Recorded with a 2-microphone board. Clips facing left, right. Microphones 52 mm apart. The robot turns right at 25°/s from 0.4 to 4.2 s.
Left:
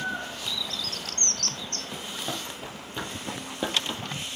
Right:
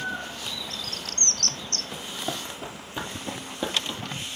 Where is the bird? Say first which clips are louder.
Left 2 dB; 25° right (ahead or behind), 0.8 m; by 1.8 s 55° right (ahead or behind), 0.8 m.